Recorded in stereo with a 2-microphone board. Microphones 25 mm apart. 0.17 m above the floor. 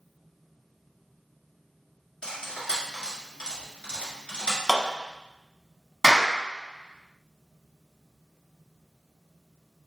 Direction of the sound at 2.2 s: 60° left (ahead or behind).